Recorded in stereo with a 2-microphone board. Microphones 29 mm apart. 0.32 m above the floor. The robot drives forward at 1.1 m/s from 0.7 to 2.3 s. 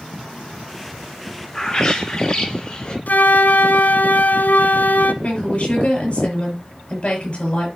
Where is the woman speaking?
40° left (ahead or behind), 6 m.